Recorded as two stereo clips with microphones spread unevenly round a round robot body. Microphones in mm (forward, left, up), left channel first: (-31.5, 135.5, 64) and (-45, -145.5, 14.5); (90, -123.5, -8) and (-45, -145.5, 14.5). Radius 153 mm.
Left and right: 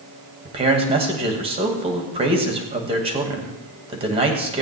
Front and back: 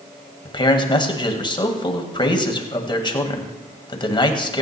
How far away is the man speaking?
About 2 m.